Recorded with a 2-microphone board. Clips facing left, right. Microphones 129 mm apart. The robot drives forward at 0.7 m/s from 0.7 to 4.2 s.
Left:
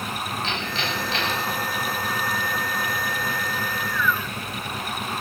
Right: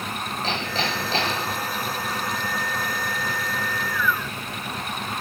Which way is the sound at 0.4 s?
35° right (ahead or behind).